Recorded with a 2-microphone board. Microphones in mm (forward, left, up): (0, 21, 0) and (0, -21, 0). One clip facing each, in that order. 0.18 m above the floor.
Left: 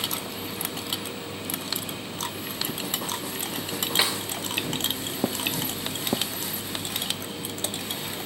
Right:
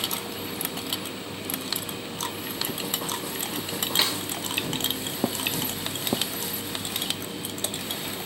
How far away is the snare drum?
About 0.5 m.